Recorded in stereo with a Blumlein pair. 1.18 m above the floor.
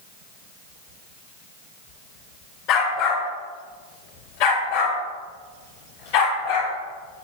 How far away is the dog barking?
About 6.5 m.